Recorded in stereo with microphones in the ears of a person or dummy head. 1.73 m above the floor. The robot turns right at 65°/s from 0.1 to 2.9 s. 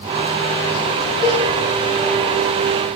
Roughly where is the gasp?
I don't hear a gasp.